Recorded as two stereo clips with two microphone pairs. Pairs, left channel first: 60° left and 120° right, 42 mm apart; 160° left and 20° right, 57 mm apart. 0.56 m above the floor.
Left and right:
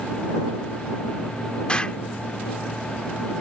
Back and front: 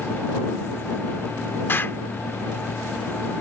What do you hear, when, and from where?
1.7 s an explosion: 120° left